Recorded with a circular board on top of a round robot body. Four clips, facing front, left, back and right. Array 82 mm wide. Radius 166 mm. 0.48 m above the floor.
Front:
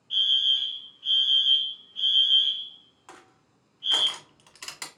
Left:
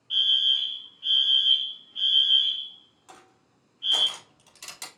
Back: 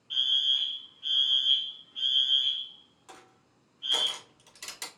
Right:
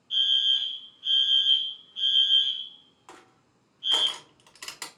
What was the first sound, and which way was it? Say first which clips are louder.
A fire alarm: left 1 dB, front 4 dB; 95° left.